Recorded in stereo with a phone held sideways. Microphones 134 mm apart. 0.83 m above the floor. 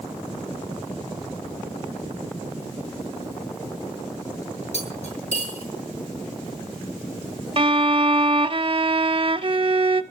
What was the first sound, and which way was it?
Cutlery clinking, 55° left (ahead or behind).